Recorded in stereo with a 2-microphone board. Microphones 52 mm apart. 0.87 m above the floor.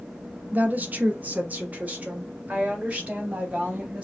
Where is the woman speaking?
35° right (ahead or behind), 0.7 m; by 4.0 s 30° right (ahead or behind), 2.5 m.